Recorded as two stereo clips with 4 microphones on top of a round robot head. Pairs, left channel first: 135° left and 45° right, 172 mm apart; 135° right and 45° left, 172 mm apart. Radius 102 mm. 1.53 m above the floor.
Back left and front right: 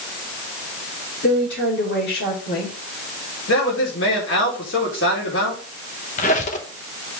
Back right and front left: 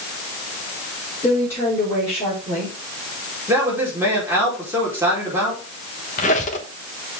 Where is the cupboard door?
No cupboard door in this recording.